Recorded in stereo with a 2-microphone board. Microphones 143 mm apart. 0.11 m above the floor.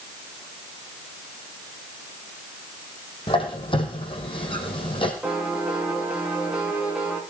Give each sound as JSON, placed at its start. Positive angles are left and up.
{"t": 3.3, "sound": "a squeak", "side_deg": 35, "distance_m": 4.0}
{"t": 5.2, "sound": "a piano", "side_deg": -5, "distance_m": 8.0}